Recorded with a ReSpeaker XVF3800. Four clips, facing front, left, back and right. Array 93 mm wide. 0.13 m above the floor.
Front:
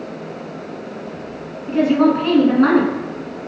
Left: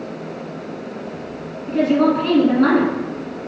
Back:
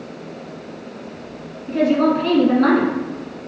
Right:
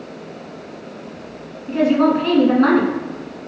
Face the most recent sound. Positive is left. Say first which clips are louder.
# right 1 dB, front 2 dB
turn(degrees=-30)